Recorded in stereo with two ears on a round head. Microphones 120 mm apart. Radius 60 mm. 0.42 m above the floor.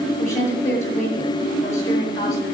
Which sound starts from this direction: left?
A woman speaking, at 0.2 s.